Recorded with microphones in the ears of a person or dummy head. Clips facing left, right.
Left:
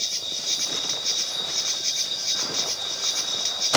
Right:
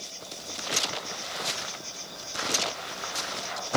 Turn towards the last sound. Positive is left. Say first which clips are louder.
# left 1 dB
turn(degrees=80)